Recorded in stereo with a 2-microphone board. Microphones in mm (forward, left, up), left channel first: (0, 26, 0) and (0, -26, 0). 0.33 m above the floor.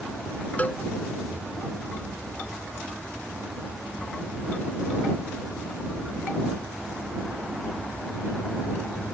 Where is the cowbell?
30° left (ahead or behind).